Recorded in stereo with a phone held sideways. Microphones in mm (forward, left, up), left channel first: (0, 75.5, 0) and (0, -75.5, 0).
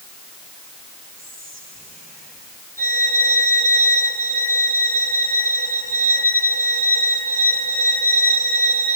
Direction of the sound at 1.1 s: 80° right.